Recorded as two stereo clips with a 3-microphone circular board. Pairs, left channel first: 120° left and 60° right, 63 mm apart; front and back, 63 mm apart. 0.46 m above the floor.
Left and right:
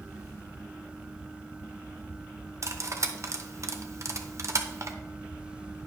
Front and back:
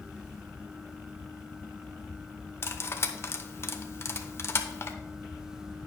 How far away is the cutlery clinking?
About 0.7 m.